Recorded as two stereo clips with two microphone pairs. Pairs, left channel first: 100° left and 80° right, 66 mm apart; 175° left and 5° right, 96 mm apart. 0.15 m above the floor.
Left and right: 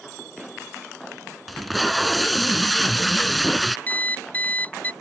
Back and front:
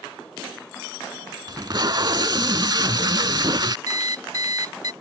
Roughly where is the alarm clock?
Ahead left.